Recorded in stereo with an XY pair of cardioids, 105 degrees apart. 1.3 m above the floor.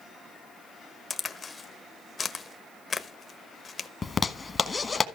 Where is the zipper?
30° left, 1.1 m.